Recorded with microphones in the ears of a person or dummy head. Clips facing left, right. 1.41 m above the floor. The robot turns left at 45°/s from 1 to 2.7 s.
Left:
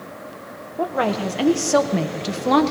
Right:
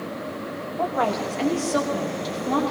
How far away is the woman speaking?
About 1.4 m.